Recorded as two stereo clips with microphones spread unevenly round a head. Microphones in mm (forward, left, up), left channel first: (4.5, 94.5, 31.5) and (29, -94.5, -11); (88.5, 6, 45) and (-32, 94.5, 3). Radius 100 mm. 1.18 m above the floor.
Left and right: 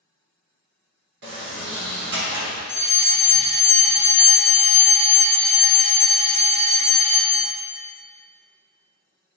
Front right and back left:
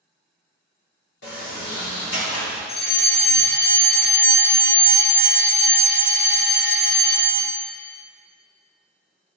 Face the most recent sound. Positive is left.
turn(degrees=-90)